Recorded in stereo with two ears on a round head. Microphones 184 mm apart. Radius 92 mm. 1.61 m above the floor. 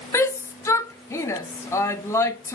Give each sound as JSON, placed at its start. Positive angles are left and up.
{"t": 0.1, "sound": "a shout", "side_deg": 15, "distance_m": 0.5}